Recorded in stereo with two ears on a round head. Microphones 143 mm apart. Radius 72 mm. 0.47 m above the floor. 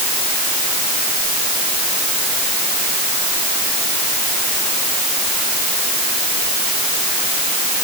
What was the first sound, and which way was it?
Only background noise.